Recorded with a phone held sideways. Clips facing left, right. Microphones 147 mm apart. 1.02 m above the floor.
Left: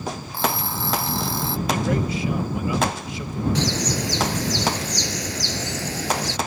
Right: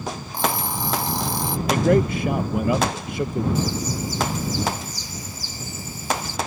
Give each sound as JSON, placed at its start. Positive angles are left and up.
{"t": 0.3, "sound": "an alarm clock", "side_deg": -15}
{"t": 1.7, "sound": "a man speaking", "side_deg": -55}
{"t": 3.5, "sound": "a bird", "side_deg": 85}